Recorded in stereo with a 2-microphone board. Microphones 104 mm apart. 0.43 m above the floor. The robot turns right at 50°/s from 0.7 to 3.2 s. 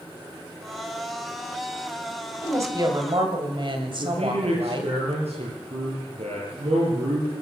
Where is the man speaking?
80° right, 8 m.